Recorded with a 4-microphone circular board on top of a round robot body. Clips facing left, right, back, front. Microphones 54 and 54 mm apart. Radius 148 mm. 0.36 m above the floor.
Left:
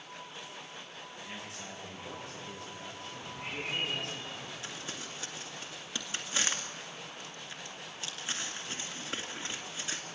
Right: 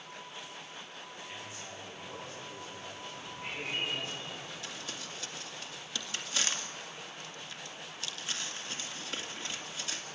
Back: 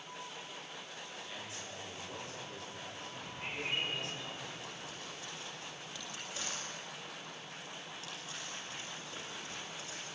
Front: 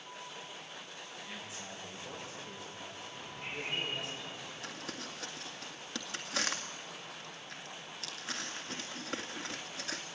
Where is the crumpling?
20° left, 1.9 m.